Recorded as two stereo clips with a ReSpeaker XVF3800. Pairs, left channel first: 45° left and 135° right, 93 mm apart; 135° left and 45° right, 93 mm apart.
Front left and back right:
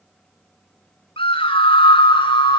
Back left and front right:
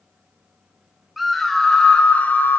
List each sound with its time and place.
1.2 s a scream: 45° left, 3 m; by 2.6 s 70° left, 3 m